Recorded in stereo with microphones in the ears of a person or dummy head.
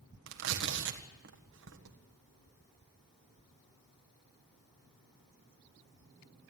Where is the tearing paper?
60° right (ahead or behind), 1.6 m.